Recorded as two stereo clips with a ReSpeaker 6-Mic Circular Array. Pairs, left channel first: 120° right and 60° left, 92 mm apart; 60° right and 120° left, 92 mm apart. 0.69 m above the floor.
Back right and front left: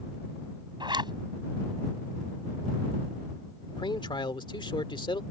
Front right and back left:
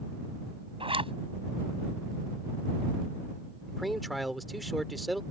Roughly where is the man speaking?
Behind right.